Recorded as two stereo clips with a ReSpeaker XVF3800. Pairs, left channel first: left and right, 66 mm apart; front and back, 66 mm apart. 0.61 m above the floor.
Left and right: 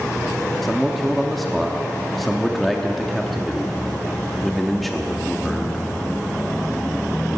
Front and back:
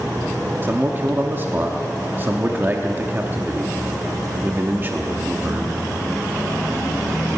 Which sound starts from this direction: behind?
A man speaking, at 0.6 s.